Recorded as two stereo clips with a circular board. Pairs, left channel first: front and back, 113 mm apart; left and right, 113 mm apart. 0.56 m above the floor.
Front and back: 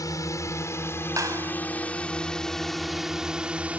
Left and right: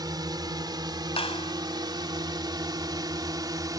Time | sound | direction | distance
0.0 | a drone | 50° right | ?
1.2 | a clap | 120° left | ?